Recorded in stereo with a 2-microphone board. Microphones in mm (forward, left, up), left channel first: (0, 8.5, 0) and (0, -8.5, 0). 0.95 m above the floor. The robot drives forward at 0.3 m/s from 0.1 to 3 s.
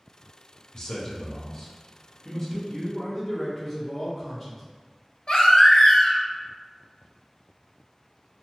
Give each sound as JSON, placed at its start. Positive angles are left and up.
{"t": 0.7, "sound": "a man speaking", "side_deg": 40, "distance_m": 0.6}
{"t": 2.7, "sound": "a man speaking", "side_deg": 10, "distance_m": 1.1}
{"t": 5.3, "sound": "a baby crying", "side_deg": 65, "distance_m": 0.5}